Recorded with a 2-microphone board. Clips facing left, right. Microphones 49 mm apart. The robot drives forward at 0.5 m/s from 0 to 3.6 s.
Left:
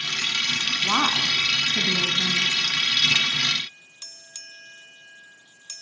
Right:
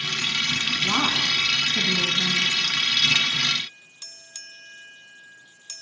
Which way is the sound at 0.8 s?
20° left (ahead or behind).